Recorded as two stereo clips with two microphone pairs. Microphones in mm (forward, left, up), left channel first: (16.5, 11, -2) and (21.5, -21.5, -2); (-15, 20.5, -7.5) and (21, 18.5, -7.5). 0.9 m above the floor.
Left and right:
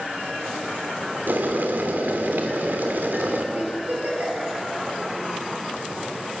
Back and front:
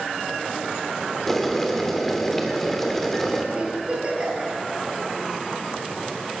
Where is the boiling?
100° right, 2.5 m.